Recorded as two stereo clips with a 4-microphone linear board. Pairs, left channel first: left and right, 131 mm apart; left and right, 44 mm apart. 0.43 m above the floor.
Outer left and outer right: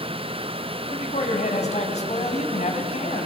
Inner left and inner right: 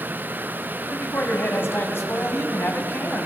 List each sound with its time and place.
0.9 s a man speaking: 60° left (ahead or behind), 3.5 m